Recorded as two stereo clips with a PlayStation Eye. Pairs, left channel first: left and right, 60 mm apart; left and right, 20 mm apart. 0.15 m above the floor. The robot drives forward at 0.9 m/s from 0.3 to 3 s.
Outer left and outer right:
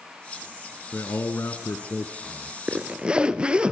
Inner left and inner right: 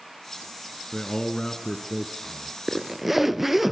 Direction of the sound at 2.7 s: 25° right (ahead or behind).